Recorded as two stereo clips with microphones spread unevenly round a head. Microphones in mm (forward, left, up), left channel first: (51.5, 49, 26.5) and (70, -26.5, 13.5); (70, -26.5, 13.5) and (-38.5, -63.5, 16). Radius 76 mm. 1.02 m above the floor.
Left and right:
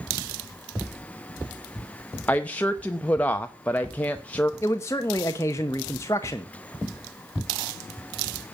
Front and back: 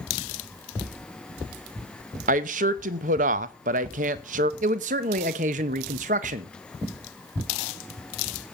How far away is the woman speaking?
About 0.9 m.